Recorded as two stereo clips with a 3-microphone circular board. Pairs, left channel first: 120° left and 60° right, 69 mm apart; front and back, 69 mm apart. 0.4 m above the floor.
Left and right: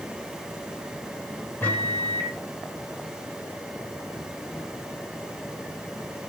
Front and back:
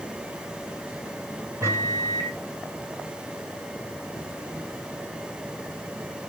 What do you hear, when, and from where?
1.6 s a microwave: 170° left, 1.4 m